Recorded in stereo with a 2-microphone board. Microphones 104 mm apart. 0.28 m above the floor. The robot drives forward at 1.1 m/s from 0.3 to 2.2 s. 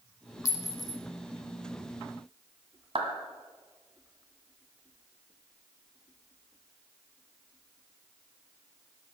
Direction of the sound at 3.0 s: 60° right (ahead or behind).